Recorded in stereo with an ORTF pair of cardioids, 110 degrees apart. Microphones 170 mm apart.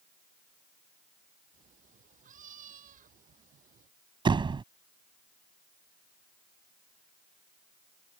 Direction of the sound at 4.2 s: 30° right.